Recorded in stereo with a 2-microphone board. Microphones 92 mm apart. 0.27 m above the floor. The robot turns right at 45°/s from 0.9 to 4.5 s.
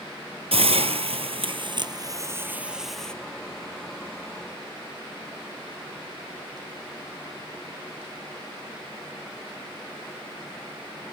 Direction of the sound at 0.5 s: 90° right.